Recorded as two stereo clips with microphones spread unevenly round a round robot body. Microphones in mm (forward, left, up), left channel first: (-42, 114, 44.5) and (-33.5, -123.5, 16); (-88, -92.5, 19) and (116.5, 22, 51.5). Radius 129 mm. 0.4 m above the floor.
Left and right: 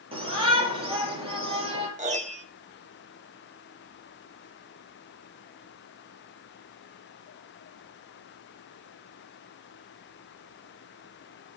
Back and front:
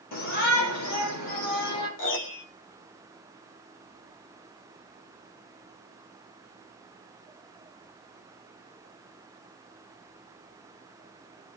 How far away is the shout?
About 9.5 m.